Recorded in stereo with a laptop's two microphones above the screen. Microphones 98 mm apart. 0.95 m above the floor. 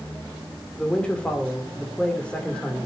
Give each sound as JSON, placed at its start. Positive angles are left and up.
{"t": 0.8, "sound": "a man speaking", "side_deg": 10, "distance_m": 2.5}